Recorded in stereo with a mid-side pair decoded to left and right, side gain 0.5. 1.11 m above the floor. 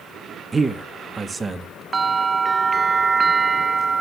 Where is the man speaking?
25° right, 0.8 m.